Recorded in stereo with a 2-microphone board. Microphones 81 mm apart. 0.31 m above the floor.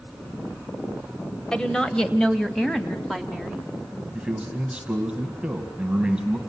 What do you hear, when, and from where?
1.5 s a woman speaking: 10° left (ahead or behind), 1.4 m; by 3.7 s 5° left (ahead or behind), 3 m
4.2 s a man speaking: 15° right (ahead or behind), 2.5 m